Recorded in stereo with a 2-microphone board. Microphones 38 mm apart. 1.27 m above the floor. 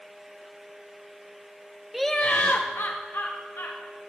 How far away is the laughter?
About 0.5 m.